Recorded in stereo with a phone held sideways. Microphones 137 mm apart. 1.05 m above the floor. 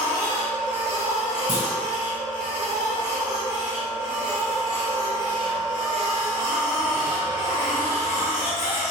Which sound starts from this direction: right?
A clunk, at 1.5 s.